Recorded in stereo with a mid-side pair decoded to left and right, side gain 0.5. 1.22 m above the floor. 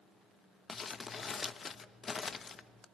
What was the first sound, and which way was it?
Crumpling, 35° left.